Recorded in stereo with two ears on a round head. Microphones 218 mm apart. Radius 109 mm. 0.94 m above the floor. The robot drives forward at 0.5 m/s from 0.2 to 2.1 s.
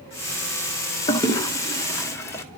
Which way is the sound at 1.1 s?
15° left (ahead or behind).